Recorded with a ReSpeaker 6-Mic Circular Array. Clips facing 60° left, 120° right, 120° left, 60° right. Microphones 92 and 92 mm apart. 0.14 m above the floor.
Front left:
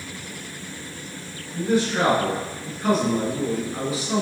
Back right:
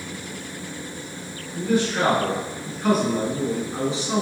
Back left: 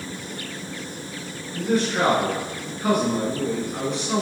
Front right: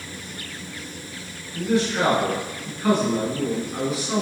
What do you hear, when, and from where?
1.5 s a man speaking: 110° left, 1.4 m; by 4.2 s 130° right, 1.3 m